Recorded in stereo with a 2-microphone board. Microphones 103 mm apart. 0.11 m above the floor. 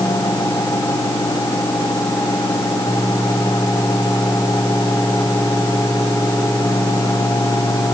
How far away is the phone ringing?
No phone ringing in this recording.